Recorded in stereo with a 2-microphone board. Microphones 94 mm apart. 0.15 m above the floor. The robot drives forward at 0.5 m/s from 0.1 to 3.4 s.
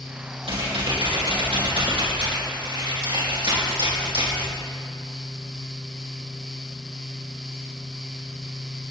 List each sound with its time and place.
0.4 s typing on a keyboard: 80° right, 5.5 m; by 4.5 s 70° right (ahead or behind), 5.5 m